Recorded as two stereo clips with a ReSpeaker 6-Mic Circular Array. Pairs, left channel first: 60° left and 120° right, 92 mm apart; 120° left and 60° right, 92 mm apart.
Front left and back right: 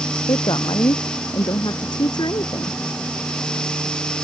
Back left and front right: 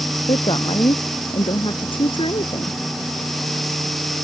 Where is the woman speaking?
95° left; by 2.8 s 100° left.